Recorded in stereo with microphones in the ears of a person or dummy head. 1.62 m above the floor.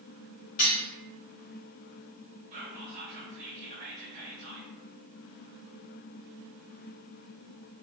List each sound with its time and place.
0.6 s cutlery clinking: 30° left (ahead or behind), 1.0 m
2.5 s whispering: 40° right (ahead or behind), 1.0 m